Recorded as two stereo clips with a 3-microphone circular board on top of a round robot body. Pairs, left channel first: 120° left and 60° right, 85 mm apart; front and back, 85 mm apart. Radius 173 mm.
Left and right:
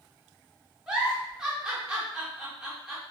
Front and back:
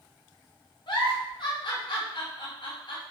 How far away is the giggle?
About 1.0 m.